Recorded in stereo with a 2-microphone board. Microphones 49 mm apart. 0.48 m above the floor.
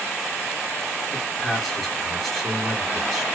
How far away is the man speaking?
About 1.4 m.